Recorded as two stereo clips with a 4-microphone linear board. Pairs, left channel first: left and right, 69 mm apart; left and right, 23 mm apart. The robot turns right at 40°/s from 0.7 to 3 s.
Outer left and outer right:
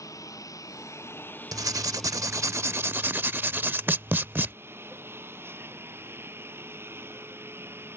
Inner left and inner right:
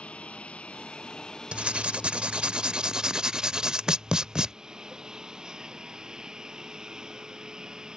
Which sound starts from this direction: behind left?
A lawn mower, at 0.0 s.